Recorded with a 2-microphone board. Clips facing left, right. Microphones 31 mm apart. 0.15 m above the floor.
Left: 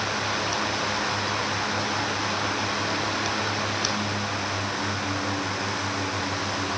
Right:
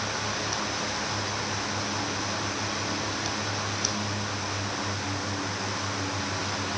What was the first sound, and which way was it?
Only background noise.